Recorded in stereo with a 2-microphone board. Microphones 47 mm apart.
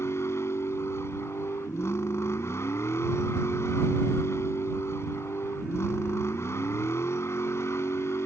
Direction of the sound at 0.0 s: 80° left.